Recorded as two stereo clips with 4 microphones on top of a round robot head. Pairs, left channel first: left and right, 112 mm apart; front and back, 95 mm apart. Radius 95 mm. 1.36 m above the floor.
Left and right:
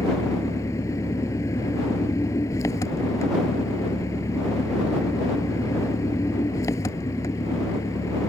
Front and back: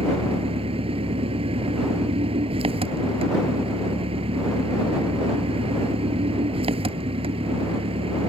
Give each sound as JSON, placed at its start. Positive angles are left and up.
{"t": 0.0, "sound": "an engine running", "azimuth_deg": 160}